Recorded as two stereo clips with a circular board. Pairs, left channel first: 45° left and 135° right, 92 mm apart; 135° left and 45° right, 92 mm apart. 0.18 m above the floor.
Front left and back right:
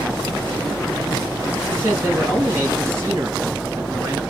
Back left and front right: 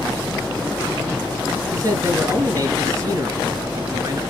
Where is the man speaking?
80° right, 2.5 m.